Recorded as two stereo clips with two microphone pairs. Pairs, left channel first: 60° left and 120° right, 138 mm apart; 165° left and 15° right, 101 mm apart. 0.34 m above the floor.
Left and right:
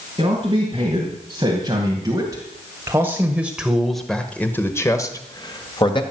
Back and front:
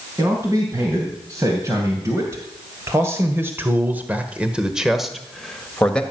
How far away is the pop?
No pop in this recording.